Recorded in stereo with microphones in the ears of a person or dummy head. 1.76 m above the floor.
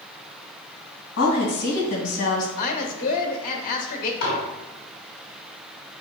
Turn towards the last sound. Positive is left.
turn(degrees=60)  # may be behind; listen again after turning